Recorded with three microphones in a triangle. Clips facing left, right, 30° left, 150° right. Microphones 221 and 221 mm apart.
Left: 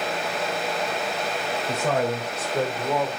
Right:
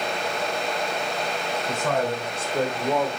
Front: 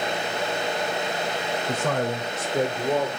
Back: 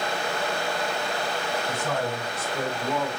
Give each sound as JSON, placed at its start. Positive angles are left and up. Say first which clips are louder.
{"t": 1.7, "sound": "a man speaking", "louder": "left 1 dB, front 5 dB", "azimuth_deg": 20, "distance_m": 3.0}